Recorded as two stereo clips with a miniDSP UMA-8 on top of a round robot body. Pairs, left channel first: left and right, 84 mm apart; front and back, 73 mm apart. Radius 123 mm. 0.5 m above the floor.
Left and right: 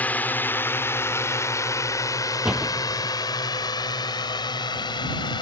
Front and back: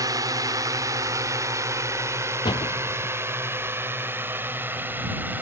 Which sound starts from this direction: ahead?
A door slam, at 2.5 s.